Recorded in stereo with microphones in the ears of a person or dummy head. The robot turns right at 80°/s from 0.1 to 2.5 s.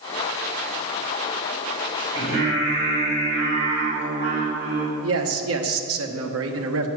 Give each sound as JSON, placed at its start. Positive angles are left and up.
{"t": 2.1, "sound": "singing", "side_deg": -25, "distance_m": 3.5}
{"t": 5.0, "sound": "a man speaking", "side_deg": -75, "distance_m": 1.2}